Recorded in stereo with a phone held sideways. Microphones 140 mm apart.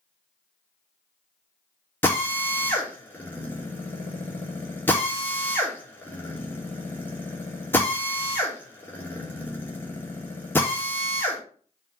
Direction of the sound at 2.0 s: 15° left (ahead or behind).